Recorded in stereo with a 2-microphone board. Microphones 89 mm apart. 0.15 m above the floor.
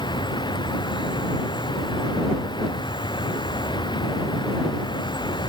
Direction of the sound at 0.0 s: 55° left (ahead or behind).